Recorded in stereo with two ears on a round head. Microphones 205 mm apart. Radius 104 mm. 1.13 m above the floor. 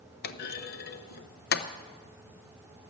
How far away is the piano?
No piano in this recording.